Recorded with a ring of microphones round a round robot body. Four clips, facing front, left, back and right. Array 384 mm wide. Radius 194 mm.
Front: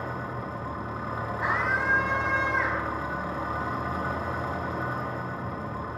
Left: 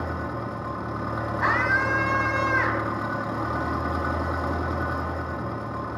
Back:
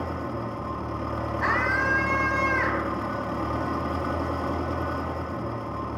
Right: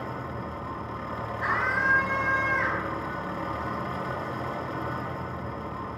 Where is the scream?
125° left, 3.5 m.